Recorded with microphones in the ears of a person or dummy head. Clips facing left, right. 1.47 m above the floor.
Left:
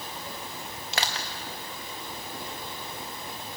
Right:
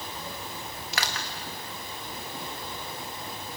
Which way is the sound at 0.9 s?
30° left (ahead or behind).